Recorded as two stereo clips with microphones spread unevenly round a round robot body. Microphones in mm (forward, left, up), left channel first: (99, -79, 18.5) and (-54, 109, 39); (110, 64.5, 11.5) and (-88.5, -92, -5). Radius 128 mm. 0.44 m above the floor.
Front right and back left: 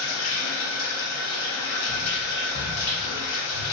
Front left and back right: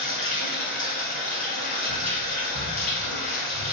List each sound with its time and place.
0.0 s running water: 25° right, 1.3 m